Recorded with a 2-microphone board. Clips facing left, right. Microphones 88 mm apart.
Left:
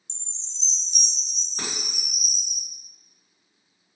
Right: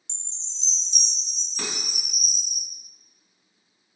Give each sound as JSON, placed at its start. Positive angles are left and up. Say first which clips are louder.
{"t": 0.1, "sound": "a chime", "louder": "left 1 dB", "side_deg": -70, "distance_m": 0.8}
{"t": 1.6, "sound": "dishes clattering", "louder": "right 1 dB", "side_deg": 40, "distance_m": 1.4}